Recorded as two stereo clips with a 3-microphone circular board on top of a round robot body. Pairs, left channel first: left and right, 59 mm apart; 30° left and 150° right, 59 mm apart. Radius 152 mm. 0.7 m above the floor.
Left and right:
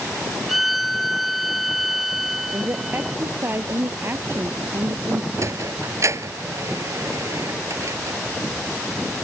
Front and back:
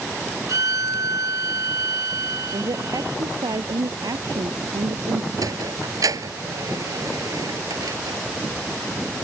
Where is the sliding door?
130° right.